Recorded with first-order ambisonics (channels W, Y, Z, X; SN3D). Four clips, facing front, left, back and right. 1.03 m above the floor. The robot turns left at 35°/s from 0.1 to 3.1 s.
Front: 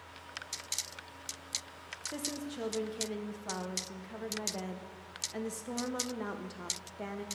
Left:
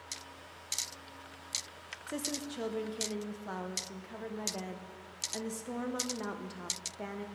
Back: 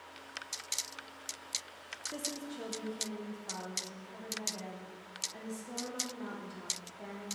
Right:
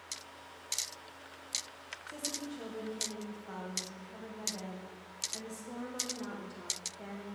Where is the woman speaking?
80° left, 0.6 m; by 7.3 s 40° left, 0.6 m.